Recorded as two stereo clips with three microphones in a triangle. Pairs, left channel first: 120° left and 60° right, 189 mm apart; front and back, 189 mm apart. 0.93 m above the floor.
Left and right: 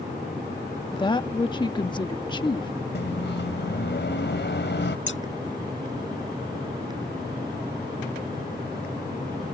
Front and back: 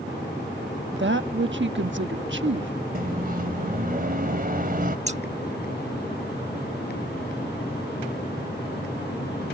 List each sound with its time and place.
0.9 s a woman speaking: 175° right
3.0 s a microwave: 140° left
5.1 s scissors: 125° left